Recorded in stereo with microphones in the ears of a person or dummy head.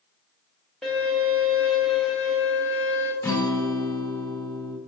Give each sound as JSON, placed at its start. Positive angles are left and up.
{"t": 0.8, "sound": "a violin", "side_deg": 0, "distance_m": 0.9}
{"t": 3.2, "sound": "a guitar", "side_deg": 10, "distance_m": 0.6}